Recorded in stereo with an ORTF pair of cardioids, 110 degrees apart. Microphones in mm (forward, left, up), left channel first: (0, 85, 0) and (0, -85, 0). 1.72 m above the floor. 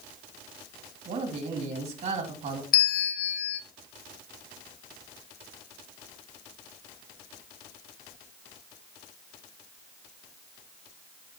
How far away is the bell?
About 0.8 m.